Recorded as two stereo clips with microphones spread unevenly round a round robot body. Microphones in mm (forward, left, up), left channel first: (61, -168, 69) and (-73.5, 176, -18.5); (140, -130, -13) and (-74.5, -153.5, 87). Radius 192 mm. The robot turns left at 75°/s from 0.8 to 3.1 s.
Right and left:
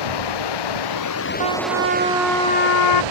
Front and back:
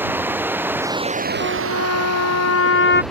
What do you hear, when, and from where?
0.0 s running water: 95° right; by 3.1 s 95° left
1.4 s a trumpet: 85° left; by 3.0 s 35° right